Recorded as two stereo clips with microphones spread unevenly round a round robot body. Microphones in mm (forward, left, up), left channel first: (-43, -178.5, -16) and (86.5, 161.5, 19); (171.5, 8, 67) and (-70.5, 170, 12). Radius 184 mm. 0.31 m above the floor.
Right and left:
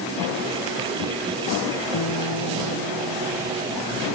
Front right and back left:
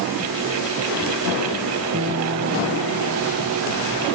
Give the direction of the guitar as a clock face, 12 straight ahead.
5 o'clock.